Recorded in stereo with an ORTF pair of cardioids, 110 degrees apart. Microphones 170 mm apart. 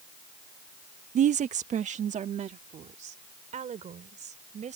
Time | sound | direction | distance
1.1 | a woman speaking | 45° right | ?